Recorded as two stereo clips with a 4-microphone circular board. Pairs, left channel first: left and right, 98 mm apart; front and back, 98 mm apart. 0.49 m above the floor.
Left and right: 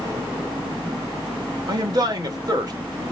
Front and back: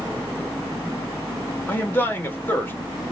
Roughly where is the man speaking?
Ahead right.